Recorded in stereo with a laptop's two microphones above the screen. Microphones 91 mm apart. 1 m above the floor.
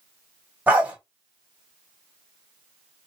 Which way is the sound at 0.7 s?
15° right (ahead or behind).